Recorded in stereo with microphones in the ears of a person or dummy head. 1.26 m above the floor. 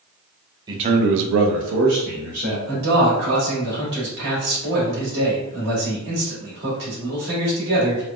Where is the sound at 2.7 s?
60° right (ahead or behind), 1.5 m.